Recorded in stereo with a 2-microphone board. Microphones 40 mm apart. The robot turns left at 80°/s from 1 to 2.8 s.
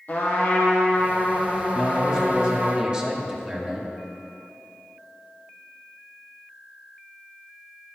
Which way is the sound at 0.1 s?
45° left.